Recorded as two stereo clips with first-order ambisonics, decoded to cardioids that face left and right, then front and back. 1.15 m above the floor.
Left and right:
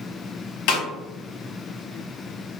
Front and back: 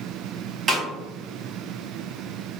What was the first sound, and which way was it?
A snare drum, 115° left.